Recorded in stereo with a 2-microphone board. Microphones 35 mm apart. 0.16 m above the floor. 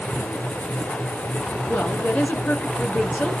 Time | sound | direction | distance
1.7 | a woman speaking | 50° left (ahead or behind) | 2.5 m